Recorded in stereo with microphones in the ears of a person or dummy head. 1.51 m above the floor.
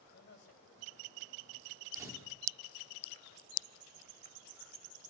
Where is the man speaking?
60° left (ahead or behind), 7.5 m.